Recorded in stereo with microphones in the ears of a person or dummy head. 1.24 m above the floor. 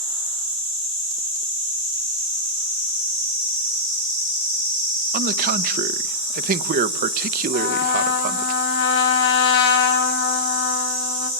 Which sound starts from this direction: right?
A man speaking, at 5.1 s.